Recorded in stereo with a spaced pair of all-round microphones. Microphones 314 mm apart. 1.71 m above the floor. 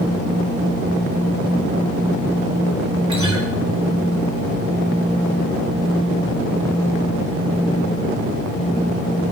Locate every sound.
3.1 s a guitar: 60° right (ahead or behind), 3 m